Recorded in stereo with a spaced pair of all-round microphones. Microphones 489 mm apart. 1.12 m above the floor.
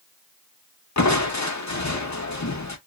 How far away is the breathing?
No breathing in this recording.